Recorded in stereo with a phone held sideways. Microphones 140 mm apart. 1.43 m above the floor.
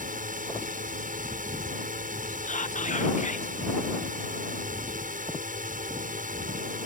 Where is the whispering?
60° left (ahead or behind).